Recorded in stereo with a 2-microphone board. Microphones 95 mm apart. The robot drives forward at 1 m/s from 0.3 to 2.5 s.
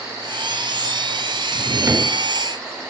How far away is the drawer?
About 0.9 m.